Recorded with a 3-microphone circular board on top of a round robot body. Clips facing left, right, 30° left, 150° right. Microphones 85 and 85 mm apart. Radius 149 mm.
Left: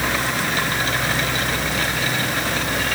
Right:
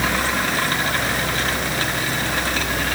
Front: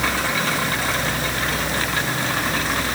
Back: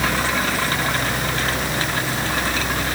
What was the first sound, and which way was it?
Only background noise.